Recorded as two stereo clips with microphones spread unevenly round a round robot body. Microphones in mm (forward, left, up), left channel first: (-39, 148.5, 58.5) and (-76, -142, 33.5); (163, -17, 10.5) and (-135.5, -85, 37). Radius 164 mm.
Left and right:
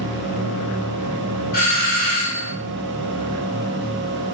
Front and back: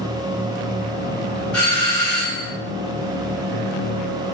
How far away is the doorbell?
About 1.7 m.